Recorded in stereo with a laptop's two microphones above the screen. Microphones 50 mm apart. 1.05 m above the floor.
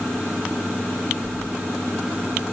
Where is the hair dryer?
No hair dryer in this recording.